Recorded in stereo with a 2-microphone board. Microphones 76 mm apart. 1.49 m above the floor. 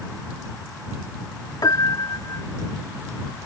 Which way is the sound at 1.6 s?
60° left (ahead or behind).